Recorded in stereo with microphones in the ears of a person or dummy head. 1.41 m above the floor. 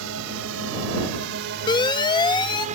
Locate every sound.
0.0 s a drone: 75° right (ahead or behind); by 2.8 s 35° right (ahead or behind)
1.7 s a siren: 30° left (ahead or behind)